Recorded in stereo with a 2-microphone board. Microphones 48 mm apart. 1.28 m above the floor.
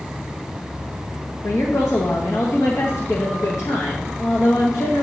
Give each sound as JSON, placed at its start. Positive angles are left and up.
{"t": 1.4, "sound": "a woman speaking", "side_deg": 85, "distance_m": 1.1}